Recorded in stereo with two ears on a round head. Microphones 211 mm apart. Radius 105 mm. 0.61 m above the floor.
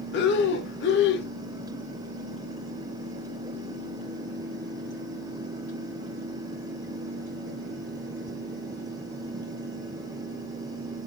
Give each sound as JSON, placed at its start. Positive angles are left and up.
{"t": 0.1, "sound": "breathing", "side_deg": 50, "distance_m": 0.5}